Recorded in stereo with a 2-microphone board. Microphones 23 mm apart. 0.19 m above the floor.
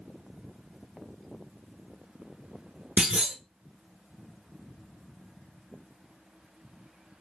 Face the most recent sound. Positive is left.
turn(degrees=-65)  # may be behind; listen again after turning